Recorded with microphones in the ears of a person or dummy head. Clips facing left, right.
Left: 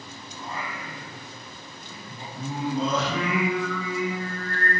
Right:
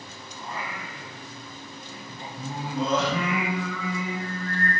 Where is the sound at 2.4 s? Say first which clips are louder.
Left 3 dB; 75° left (ahead or behind), 1.8 m.